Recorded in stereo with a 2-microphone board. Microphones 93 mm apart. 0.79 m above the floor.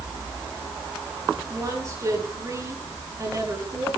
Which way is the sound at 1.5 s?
30° right (ahead or behind).